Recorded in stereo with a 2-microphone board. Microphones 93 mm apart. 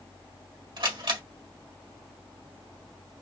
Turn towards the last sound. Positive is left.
turn(degrees=-60)  # may be behind; listen again after turning